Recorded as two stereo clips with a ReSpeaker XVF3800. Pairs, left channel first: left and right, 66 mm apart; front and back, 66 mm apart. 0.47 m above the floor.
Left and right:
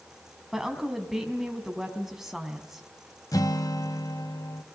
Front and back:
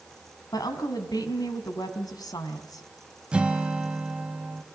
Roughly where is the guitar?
Left.